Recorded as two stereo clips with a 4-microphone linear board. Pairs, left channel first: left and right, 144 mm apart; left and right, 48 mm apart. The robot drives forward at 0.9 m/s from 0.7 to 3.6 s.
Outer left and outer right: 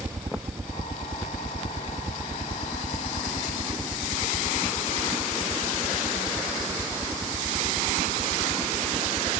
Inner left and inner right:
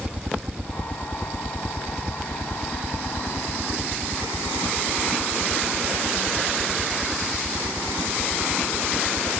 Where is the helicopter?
30° right (ahead or behind).